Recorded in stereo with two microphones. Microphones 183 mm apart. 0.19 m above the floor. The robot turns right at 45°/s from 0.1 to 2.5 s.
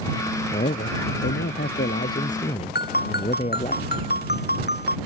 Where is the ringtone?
65° left (ahead or behind).